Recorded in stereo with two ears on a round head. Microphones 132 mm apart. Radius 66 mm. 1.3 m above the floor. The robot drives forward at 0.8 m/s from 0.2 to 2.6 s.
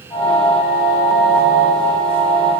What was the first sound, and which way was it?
Only background noise.